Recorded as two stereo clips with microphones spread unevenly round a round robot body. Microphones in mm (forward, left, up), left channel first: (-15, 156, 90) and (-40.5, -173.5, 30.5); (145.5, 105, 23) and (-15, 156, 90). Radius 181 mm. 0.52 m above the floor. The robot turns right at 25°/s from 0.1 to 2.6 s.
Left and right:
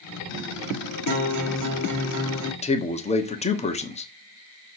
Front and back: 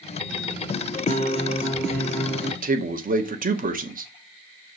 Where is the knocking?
No knocking in this recording.